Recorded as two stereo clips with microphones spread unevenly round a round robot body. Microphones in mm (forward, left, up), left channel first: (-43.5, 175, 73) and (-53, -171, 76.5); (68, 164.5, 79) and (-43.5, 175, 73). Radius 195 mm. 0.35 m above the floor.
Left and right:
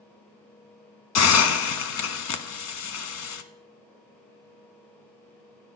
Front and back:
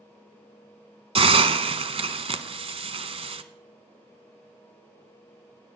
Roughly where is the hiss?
Behind left.